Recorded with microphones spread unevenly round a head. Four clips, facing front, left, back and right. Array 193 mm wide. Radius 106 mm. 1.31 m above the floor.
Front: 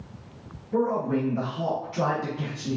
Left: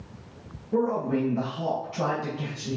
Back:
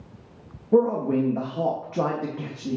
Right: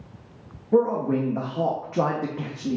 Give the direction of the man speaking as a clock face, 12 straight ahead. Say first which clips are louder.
Right 4 dB, back 5 dB; 5 o'clock.